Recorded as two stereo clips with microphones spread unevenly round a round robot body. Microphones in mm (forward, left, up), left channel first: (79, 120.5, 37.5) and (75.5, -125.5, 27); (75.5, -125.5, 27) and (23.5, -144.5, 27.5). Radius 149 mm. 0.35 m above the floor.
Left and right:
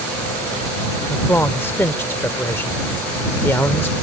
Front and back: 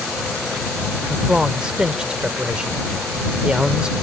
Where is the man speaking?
160° left.